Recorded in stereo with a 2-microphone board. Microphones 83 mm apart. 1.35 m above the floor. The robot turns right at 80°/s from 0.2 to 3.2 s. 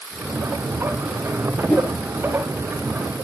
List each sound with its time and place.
1.7 s a whoosh: 10° left (ahead or behind), 1.4 m; by 2.0 s 25° left (ahead or behind), 1.4 m